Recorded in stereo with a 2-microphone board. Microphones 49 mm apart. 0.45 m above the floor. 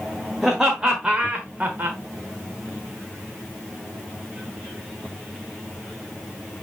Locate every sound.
0.4 s laughter: 5° right (ahead or behind), 1.5 m; by 2.0 s 45° right (ahead or behind), 1.2 m